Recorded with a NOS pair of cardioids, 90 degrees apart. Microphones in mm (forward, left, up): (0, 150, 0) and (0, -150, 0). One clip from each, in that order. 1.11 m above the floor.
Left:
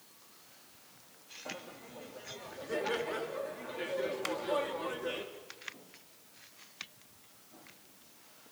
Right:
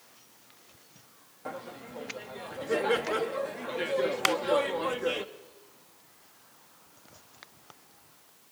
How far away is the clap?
About 0.7 m.